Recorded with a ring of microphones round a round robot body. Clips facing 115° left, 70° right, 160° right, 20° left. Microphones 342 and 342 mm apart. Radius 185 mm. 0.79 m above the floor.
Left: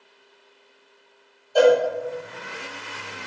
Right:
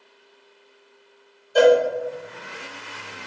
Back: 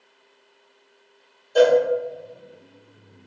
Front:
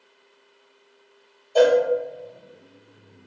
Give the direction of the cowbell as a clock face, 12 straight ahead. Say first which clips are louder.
Right 1 dB, back 1 dB; 3 o'clock.